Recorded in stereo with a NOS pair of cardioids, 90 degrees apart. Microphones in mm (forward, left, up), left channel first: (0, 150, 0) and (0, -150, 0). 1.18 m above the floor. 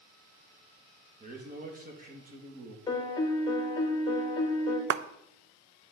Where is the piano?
15° left, 1.4 m.